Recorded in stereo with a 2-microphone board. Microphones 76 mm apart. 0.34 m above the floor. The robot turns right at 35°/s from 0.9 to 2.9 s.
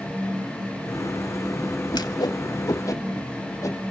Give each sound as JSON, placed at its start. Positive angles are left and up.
{"t": 1.9, "sound": "a whoosh", "side_deg": 65, "distance_m": 1.0}